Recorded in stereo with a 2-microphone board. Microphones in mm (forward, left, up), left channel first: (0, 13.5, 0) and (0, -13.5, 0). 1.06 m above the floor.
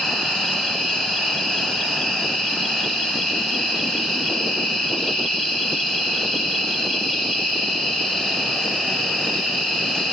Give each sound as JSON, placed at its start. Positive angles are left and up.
{"t": 0.0, "sound": "an insect", "side_deg": 20, "distance_m": 2.5}